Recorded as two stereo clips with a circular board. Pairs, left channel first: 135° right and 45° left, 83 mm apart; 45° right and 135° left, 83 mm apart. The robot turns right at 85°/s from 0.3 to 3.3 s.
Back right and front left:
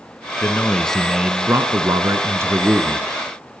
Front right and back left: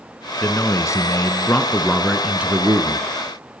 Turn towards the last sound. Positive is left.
turn(degrees=150)